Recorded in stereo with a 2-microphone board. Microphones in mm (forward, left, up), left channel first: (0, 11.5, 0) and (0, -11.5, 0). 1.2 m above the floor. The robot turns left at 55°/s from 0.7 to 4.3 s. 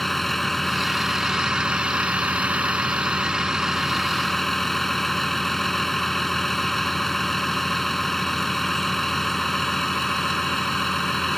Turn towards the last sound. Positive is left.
turn(degrees=170)